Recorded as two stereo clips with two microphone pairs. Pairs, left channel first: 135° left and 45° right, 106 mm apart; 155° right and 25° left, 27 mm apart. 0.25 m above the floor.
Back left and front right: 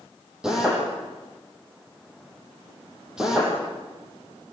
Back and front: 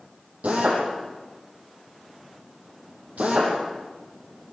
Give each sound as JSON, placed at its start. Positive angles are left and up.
{"t": 0.4, "sound": "a drill", "azimuth_deg": 35, "distance_m": 9.5}